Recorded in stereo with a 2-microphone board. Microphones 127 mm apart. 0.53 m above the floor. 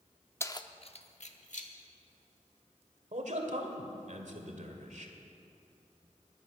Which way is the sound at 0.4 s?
20° left (ahead or behind).